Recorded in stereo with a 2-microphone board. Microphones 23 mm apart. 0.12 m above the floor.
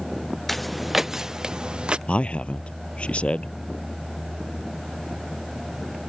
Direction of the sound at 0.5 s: 10° left (ahead or behind).